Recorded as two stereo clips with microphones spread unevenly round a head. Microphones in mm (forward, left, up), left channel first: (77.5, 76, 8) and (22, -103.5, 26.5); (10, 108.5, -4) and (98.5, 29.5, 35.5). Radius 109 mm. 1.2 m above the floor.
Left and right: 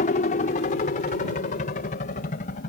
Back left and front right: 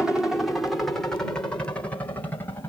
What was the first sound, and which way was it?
A helicopter, 60° left.